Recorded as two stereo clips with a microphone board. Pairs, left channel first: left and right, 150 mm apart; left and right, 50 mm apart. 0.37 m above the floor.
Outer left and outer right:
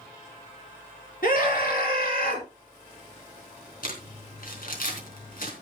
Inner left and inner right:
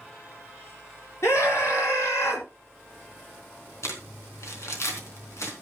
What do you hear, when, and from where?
1.2 s a scream: 70° left (ahead or behind), 5 m; by 2.5 s 75° left (ahead or behind), 3.5 m
3.8 s crumpling: 75° left (ahead or behind), 3.5 m